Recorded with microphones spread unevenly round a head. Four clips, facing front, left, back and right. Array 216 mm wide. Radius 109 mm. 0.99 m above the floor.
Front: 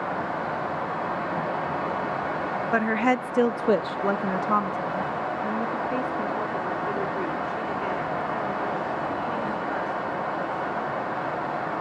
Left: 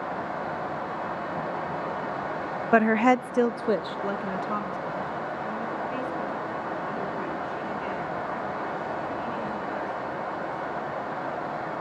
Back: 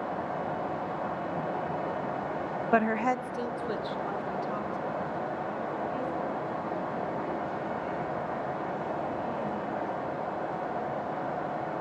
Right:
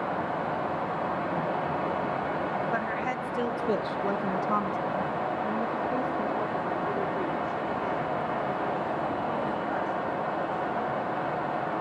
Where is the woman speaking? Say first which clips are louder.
Left 10 dB, front 2 dB; 85° left, 0.6 m; by 10.6 s 30° right, 5.5 m.